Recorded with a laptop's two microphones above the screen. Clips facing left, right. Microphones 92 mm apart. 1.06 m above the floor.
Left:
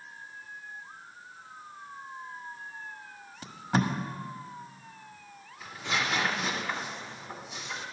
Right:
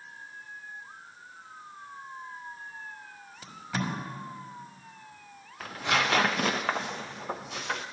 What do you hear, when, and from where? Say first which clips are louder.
3.4 s tape being pulled: left 5 dB; 40° left (ahead or behind), 1.1 m
5.6 s tearing paper: right 4 dB; 70° right (ahead or behind), 0.5 m